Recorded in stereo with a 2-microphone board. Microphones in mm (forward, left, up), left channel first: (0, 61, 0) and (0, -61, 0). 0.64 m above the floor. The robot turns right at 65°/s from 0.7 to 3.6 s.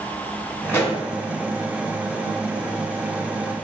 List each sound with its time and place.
0.7 s a pop: 15° left (ahead or behind), 1.8 m; by 1.0 s 35° left (ahead or behind), 1.8 m